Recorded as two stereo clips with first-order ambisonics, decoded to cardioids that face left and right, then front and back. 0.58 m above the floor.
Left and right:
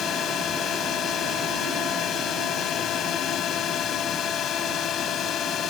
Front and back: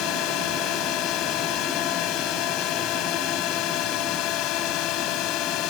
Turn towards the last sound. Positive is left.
turn(degrees=35)